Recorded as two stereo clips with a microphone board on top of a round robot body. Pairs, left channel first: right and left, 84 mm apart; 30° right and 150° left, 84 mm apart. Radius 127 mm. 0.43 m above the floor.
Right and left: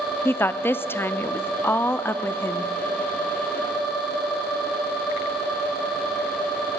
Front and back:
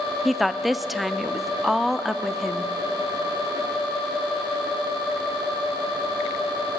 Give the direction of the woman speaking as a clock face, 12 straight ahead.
4 o'clock.